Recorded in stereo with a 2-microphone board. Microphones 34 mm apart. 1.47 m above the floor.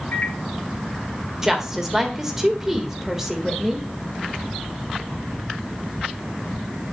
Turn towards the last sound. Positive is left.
turn(degrees=-10)  # may be behind; listen again after turning